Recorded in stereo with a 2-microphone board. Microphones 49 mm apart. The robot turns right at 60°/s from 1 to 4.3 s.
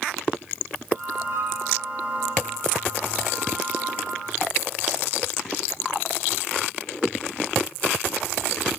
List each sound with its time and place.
1.3 s a flute: 55° right (ahead or behind), 7 m; by 1.6 s 75° right (ahead or behind), 7 m